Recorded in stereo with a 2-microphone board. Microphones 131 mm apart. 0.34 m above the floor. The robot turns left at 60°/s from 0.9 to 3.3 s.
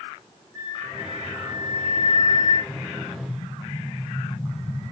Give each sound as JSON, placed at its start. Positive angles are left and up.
{"t": 0.5, "sound": "a flute", "azimuth_deg": 155, "distance_m": 8.5}
{"t": 2.7, "sound": "an explosion", "azimuth_deg": 65, "distance_m": 6.5}